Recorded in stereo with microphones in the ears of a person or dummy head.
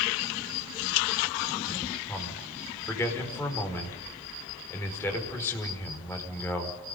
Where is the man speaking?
10° left (ahead or behind), 5 m.